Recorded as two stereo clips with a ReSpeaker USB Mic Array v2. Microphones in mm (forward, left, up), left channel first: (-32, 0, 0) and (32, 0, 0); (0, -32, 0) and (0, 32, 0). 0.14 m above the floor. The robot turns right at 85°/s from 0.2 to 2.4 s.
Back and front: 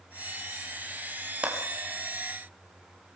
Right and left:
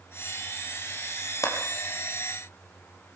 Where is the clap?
75° right, 4 m; by 1.6 s 65° right, 4 m.